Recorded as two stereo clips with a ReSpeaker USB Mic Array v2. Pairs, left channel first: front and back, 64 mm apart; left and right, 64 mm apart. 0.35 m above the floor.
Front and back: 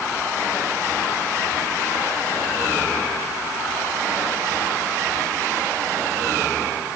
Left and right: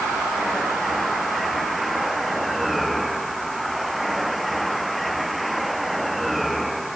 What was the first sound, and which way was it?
Only background noise.